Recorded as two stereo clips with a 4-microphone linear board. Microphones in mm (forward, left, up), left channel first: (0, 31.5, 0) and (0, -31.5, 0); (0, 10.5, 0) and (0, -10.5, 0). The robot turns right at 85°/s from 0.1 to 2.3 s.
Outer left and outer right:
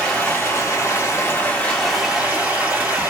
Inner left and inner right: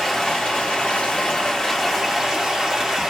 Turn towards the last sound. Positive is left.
turn(degrees=-155)